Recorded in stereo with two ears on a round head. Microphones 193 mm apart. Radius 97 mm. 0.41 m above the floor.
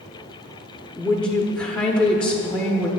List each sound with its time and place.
1.0 s a woman speaking: 5° left (ahead or behind), 0.8 m